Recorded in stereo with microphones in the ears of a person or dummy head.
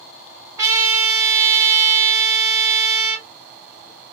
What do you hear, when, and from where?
0.6 s a trumpet: 15° right (ahead or behind), 1.0 m